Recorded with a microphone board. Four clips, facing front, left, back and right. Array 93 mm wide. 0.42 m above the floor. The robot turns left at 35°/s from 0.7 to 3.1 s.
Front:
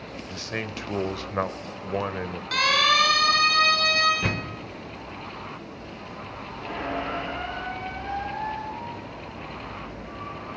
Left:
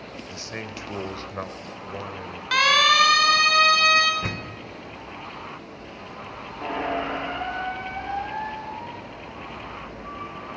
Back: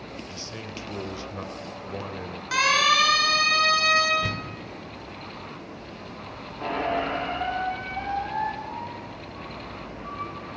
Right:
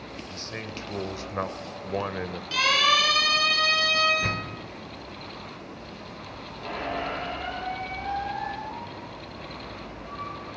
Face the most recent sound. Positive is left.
turn(degrees=135)